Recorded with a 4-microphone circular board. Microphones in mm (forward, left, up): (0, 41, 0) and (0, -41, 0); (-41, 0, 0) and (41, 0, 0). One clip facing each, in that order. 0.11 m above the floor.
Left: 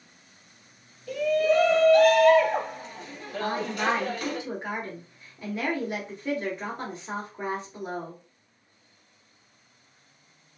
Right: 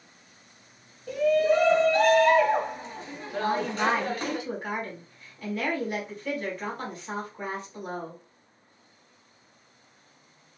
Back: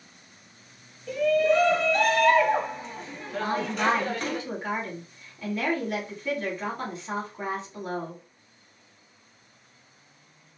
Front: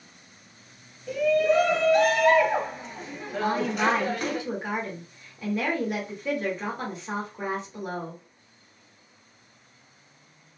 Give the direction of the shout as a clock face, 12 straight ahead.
3 o'clock.